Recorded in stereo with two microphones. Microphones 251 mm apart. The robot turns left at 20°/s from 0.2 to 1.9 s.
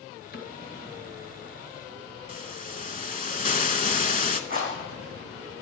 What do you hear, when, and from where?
0.3 s a cupboard door: 45° left (ahead or behind), 1.9 m
2.3 s a hiss: 35° left (ahead or behind), 0.6 m
4.5 s a rattle: 35° right (ahead or behind), 4 m